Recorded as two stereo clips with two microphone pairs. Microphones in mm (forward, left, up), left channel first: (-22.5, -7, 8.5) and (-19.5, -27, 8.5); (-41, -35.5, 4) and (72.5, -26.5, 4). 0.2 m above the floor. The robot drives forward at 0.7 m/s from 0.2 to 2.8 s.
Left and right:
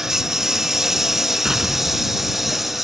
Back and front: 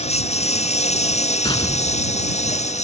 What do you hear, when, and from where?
0.0 s a lawn mower: 155° right; by 2.8 s 165° right
1.4 s an explosion: 140° right; by 2.8 s 155° right